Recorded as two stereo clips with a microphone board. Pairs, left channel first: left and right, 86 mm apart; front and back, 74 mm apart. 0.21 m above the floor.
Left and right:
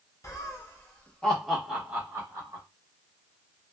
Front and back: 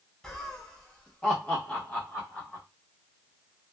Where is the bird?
I don't hear a bird.